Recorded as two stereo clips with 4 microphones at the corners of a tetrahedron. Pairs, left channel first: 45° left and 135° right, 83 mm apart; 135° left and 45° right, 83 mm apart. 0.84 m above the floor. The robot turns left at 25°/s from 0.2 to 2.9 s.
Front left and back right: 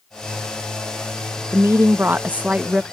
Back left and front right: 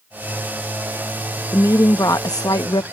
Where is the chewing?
No chewing in this recording.